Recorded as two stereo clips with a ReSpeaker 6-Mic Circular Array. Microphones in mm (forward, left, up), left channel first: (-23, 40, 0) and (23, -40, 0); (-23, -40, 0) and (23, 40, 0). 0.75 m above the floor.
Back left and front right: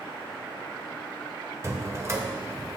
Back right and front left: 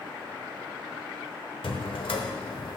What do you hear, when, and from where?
1.6 s a drawer: 115° right, 0.9 m